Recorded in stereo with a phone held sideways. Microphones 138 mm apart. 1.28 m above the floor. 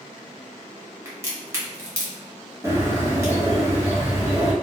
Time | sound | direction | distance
1.1 | a crack | 20° right (ahead or behind) | 0.9 m
2.6 | a bird | 20° right (ahead or behind) | 0.7 m